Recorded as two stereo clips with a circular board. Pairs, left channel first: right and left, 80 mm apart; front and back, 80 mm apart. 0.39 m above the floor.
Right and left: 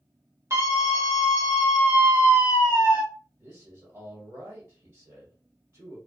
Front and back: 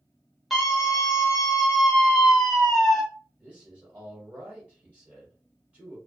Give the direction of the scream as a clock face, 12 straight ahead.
9 o'clock.